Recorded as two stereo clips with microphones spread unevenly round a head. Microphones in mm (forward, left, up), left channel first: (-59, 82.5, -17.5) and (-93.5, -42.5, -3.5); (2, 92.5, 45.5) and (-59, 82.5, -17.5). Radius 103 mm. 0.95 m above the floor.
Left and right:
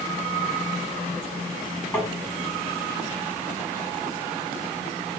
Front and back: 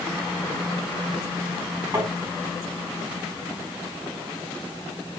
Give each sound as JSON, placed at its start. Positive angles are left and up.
{"t": 1.9, "sound": "tapping", "azimuth_deg": 150, "distance_m": 2.0}